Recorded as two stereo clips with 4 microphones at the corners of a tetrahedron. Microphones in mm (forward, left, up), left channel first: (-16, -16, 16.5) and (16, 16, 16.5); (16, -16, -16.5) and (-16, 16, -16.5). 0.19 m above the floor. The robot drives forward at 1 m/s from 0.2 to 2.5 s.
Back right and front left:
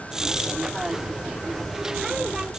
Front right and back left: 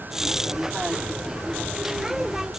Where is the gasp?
I don't hear a gasp.